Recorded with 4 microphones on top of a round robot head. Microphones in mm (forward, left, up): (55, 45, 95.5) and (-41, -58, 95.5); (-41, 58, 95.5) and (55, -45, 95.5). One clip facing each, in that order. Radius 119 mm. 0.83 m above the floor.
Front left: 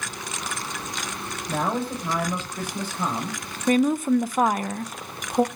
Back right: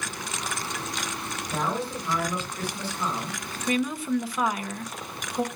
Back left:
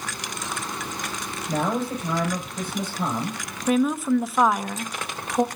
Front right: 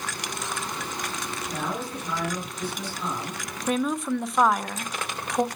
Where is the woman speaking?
50° left, 0.7 m.